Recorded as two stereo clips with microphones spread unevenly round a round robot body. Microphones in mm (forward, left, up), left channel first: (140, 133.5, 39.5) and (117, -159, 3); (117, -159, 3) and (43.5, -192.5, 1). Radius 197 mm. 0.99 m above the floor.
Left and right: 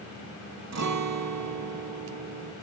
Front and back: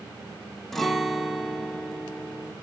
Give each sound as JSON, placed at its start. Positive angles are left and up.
{"t": 0.7, "sound": "a guitar", "azimuth_deg": -60, "distance_m": 1.1}